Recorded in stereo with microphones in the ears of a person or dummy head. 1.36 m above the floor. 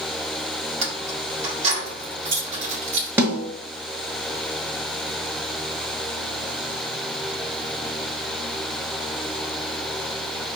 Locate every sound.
0.8 s keys jangling: 40° right (ahead or behind), 1.7 m
3.2 s a snare drum: 10° right (ahead or behind), 1.4 m